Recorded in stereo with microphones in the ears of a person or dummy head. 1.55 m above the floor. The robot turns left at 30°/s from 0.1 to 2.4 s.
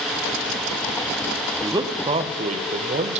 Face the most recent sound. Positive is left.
turn(degrees=-35)  # may be behind; listen again after turning